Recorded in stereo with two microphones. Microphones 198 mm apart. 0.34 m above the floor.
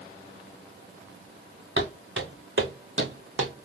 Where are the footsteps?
70° right (ahead or behind), 1.9 m; by 3.5 s 75° right (ahead or behind), 1.1 m.